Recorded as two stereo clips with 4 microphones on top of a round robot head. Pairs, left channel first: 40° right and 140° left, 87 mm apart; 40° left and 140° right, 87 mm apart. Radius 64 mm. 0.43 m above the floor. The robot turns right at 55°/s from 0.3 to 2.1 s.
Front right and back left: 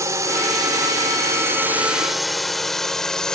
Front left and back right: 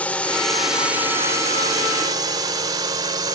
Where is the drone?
105° left; by 3.4 s 120° right.